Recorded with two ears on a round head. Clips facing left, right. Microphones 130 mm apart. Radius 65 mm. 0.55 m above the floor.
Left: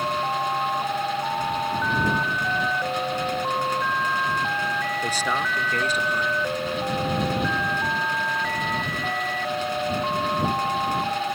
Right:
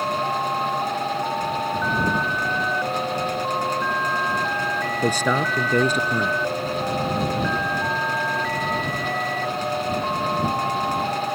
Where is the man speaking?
80° right.